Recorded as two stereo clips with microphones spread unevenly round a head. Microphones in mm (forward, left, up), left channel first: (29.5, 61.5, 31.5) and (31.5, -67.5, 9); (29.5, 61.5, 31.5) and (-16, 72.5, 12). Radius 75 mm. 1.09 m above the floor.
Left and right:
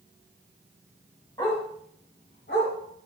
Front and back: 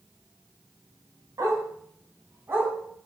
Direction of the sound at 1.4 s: 155° left.